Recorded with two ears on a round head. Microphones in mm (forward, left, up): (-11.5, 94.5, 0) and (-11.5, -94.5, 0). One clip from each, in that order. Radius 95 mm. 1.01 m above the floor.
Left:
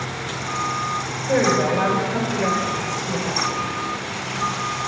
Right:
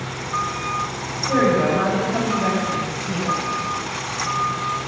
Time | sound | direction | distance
1.3 | a woman speaking | 75° left (ahead or behind) | 3.5 m